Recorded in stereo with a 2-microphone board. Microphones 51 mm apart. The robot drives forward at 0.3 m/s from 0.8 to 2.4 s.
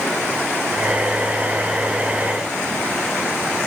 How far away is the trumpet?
No trumpet in this recording.